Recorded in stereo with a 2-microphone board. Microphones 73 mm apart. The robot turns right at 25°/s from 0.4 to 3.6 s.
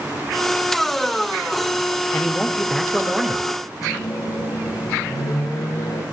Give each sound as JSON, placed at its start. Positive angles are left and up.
{"t": 2.1, "sound": "a man speaking", "azimuth_deg": 160, "distance_m": 0.9}
{"t": 3.8, "sound": "a microwave", "side_deg": 55, "distance_m": 8.0}